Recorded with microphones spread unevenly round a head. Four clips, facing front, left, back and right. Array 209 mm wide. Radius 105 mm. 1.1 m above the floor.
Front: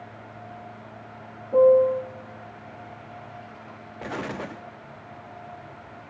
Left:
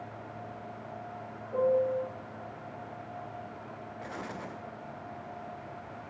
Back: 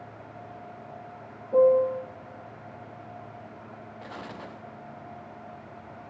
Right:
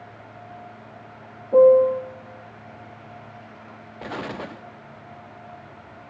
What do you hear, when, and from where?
1.5 s a piano: 90° right, 1.4 m
4.0 s an explosion: 45° right, 0.9 m